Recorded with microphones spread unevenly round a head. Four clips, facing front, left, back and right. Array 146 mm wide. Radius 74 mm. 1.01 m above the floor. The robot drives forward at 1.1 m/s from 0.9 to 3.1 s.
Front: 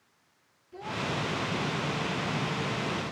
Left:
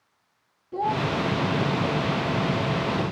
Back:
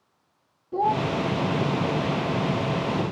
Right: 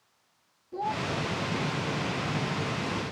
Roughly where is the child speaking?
Behind.